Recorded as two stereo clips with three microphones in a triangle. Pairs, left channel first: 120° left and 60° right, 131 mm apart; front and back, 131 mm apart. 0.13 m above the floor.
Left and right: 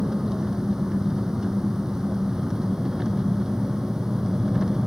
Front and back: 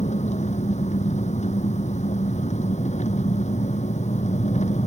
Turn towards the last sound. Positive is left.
turn(degrees=25)